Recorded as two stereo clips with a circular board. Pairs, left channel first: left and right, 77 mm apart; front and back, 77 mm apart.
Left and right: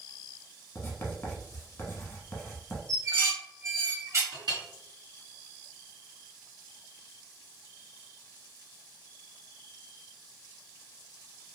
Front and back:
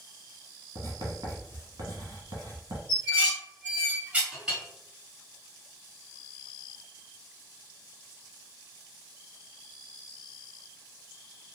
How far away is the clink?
About 1.7 m.